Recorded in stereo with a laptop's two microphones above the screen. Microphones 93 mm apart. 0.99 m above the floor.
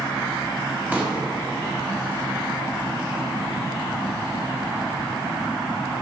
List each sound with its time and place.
0.9 s a pop: 20° right (ahead or behind), 1.4 m